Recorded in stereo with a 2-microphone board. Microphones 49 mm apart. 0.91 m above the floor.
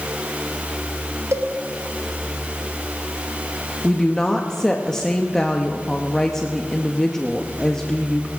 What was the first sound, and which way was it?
A cowbell, 80° right.